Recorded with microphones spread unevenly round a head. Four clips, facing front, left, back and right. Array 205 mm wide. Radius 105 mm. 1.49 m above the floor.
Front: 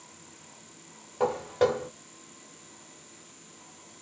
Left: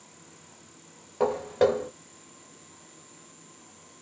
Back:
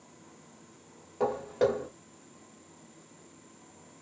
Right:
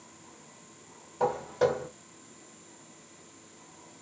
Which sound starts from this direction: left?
Footsteps, at 1.2 s.